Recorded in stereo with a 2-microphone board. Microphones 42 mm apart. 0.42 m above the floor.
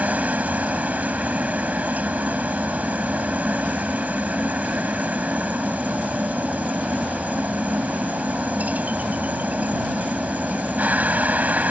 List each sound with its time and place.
0.0 s a helicopter: 40° right (ahead or behind)